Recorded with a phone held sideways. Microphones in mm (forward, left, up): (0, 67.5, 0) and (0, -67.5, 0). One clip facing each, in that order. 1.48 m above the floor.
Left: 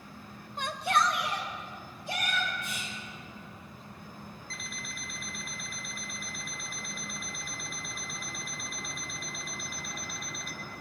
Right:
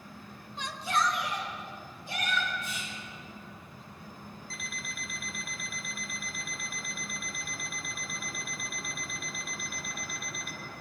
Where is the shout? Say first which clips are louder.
Left 2 dB; 50° left (ahead or behind), 0.6 m; by 2.5 s 75° left (ahead or behind), 3.5 m.